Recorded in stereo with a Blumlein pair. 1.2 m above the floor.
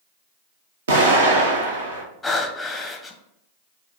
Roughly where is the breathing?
Ahead.